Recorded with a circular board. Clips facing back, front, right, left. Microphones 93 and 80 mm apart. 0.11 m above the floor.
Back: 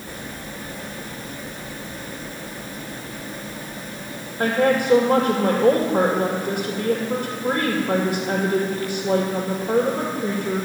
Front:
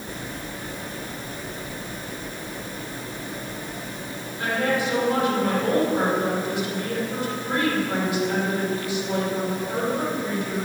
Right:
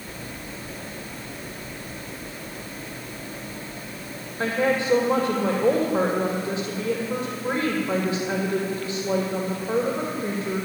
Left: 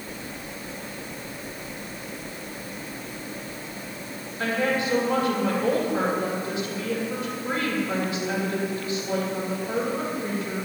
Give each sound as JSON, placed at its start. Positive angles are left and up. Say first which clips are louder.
{"t": 4.4, "sound": "a woman speaking", "louder": "back 5 dB, right 2 dB", "azimuth_deg": -150, "distance_m": 2.5}